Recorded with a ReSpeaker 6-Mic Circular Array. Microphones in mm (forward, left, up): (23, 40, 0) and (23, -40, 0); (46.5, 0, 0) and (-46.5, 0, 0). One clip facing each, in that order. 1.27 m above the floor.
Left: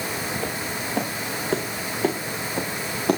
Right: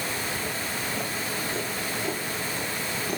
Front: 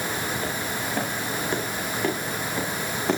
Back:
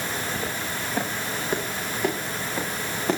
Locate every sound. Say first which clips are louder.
0.4 s footsteps: left 3 dB, front 1 dB; 105° left, 6.5 m; by 3.2 s 90° left, 7 m